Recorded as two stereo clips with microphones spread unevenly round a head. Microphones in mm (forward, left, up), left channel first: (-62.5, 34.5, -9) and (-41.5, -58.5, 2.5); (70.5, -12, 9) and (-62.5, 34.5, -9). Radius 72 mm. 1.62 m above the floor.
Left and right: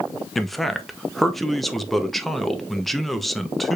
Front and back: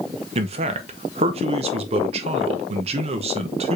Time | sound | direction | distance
0.3 | a man speaking | 160° right | 0.7 m